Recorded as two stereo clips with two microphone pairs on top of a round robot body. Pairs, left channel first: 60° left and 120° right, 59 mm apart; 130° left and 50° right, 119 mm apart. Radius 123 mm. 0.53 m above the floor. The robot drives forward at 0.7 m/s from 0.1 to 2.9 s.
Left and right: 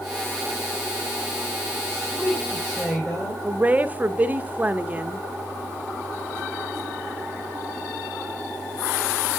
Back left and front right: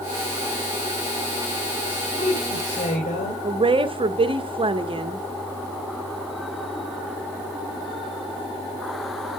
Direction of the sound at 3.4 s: 60° right.